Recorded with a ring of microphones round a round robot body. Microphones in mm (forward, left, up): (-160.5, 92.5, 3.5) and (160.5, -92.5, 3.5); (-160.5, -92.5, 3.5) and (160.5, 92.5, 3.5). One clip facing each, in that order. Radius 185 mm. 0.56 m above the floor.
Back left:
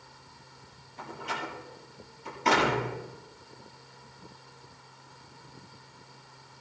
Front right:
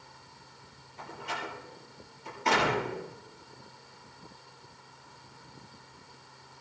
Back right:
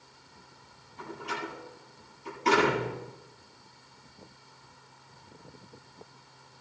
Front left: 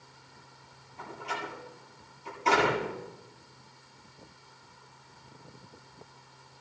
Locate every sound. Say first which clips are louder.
1.0 s a door slam: back left 2 dB, back right 2 dB; 145° left, 7.5 m